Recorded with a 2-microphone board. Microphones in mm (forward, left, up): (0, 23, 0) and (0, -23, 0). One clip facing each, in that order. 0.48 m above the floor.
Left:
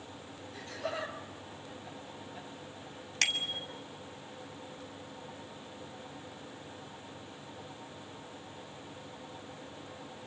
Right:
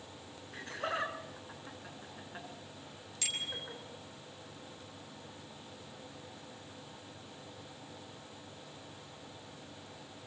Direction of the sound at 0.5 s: 50° right (ahead or behind).